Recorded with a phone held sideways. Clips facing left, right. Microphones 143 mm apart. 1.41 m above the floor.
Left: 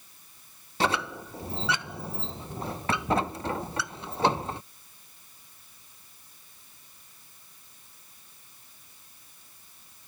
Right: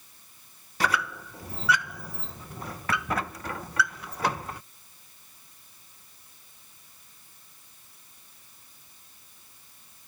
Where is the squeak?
25° left (ahead or behind).